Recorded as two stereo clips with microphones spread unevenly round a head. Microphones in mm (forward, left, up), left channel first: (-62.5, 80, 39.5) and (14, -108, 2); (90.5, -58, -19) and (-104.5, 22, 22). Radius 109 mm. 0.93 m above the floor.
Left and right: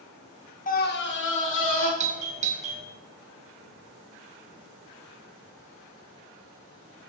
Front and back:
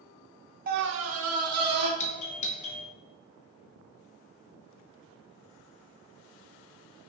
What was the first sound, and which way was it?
A scream, 135° left.